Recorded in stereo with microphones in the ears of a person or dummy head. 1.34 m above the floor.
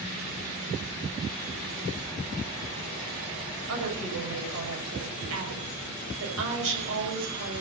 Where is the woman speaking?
70° right (ahead or behind), 7 m.